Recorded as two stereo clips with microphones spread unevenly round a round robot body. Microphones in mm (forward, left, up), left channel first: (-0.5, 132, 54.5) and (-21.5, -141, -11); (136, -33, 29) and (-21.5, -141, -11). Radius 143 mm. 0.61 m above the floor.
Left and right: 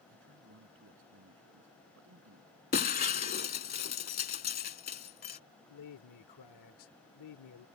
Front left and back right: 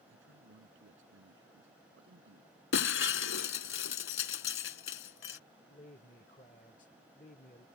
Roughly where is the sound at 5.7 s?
Left.